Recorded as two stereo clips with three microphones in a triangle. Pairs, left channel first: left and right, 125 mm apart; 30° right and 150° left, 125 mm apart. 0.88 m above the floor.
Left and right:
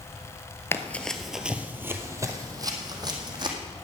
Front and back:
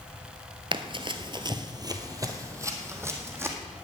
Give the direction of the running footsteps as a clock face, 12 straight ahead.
7 o'clock.